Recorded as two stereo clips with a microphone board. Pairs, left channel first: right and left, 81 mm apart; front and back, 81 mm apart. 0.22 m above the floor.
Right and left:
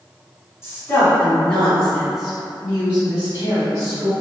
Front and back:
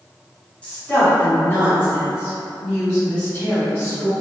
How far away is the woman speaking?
About 1.5 m.